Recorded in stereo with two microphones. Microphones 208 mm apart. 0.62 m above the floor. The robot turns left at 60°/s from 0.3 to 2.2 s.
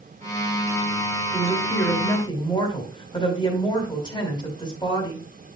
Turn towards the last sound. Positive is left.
turn(degrees=155)